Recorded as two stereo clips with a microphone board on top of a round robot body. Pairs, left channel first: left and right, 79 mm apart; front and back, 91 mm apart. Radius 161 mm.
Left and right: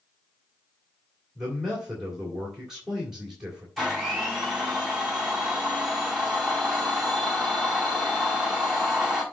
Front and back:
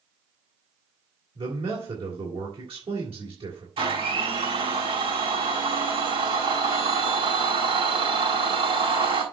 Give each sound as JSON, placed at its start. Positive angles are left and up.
{"t": 1.4, "sound": "a man speaking", "azimuth_deg": -175, "distance_m": 2.5}
{"t": 3.8, "sound": "a blender", "azimuth_deg": 175, "distance_m": 5.0}